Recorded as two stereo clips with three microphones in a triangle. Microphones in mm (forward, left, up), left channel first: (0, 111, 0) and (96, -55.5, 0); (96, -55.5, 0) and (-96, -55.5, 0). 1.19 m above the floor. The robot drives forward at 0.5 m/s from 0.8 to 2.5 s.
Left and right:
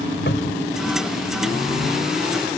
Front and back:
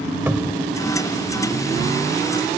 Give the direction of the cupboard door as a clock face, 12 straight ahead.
9 o'clock.